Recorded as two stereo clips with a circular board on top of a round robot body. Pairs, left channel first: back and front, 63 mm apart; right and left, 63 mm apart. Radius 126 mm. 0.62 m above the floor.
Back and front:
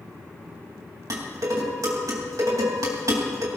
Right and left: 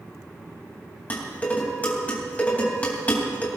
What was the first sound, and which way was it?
Dishes clattering, 25° right.